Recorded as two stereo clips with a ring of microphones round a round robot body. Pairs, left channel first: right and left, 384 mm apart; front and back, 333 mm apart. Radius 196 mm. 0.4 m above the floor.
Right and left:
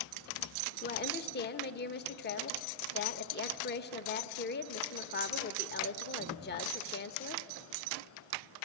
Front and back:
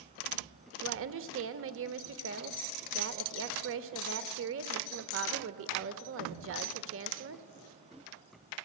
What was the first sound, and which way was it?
A woman speaking, 145° right.